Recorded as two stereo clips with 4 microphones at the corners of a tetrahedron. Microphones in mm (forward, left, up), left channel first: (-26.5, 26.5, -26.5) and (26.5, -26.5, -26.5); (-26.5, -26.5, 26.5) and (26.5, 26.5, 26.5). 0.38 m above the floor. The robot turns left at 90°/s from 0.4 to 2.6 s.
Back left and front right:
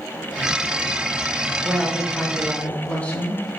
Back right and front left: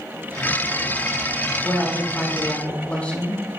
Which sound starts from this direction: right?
A woman speaking, at 1.6 s.